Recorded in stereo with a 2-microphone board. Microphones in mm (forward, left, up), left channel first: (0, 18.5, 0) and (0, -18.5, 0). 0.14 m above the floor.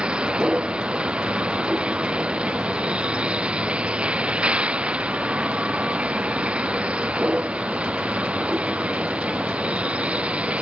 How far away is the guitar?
I don't hear a guitar.